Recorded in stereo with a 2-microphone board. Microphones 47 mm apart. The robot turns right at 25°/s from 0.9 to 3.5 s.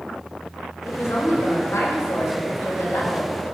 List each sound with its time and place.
0.9 s a woman speaking: 65° left, 4 m; by 3.3 s 125° left, 4 m